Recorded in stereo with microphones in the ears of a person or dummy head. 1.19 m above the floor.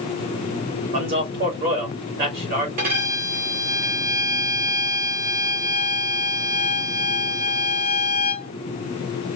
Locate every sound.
0.9 s a man speaking: 50° right (ahead or behind), 1.9 m
2.8 s a violin: 40° right (ahead or behind), 1.5 m